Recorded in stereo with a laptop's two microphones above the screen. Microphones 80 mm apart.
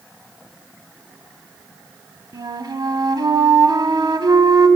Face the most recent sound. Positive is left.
turn(degrees=-65)  # may be behind; listen again after turning